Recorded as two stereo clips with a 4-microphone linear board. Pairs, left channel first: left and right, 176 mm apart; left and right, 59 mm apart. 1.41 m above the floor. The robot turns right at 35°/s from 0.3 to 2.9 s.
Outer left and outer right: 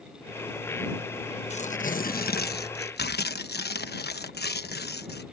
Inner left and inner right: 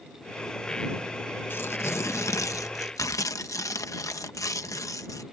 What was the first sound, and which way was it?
Tearing paper, 40° left.